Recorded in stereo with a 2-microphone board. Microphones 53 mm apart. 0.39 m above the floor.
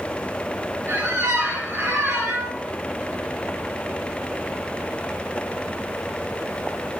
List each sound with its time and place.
0.9 s a squeak: 60° right (ahead or behind), 3 m